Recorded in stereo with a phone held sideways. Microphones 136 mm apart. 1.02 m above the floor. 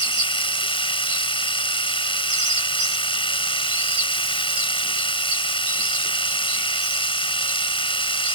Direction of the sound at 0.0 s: 40° left (ahead or behind).